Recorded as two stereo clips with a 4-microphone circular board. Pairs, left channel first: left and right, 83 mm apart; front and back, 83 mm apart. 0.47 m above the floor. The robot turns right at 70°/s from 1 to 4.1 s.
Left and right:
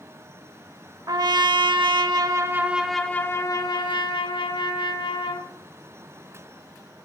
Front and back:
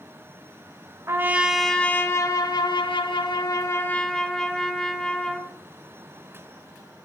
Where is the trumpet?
130° right, 0.6 m; by 5.5 s 85° left, 0.6 m.